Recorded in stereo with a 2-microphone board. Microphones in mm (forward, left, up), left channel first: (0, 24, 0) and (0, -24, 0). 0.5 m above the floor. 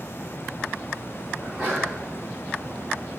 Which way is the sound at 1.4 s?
10° left (ahead or behind).